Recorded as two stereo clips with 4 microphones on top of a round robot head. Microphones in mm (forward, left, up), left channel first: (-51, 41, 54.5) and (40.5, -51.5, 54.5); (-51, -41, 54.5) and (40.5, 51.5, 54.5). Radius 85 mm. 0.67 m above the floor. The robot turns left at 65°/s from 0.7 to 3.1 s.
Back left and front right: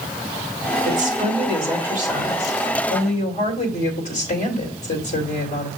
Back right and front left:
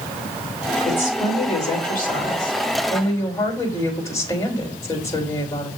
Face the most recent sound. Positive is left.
turn(degrees=160)